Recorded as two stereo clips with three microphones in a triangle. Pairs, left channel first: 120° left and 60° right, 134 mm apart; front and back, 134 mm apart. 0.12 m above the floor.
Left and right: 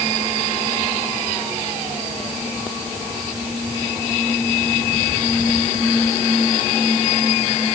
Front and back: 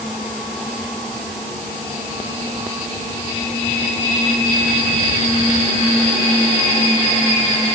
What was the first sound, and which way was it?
Only background noise.